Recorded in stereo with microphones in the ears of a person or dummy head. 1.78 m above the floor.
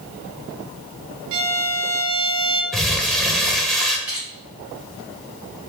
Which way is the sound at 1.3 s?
85° right.